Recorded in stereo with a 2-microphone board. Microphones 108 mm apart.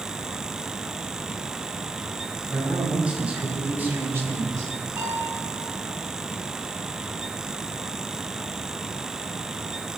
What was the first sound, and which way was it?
A man speaking, 5° right (ahead or behind).